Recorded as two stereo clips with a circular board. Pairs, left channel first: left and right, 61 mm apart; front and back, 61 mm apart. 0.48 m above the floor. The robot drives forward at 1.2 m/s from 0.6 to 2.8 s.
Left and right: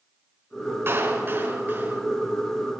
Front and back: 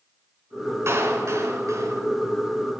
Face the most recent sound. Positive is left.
turn(degrees=-155)